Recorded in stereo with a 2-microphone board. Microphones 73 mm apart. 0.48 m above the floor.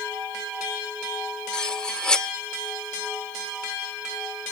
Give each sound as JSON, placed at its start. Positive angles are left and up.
{"t": 1.5, "sound": "cutlery clinking", "side_deg": 10, "distance_m": 0.6}